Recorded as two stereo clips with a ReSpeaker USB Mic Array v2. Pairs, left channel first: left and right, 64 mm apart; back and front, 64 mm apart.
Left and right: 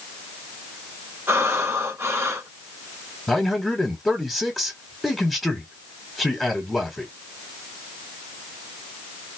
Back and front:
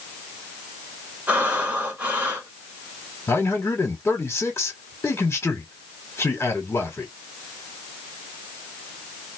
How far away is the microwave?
I don't hear a microwave.